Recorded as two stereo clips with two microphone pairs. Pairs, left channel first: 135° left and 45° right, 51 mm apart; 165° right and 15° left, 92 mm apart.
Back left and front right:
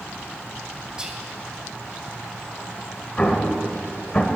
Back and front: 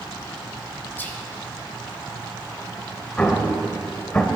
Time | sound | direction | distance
1.0 | whispering | 105° right | 1.4 m
3.2 | an explosion | 150° left | 0.7 m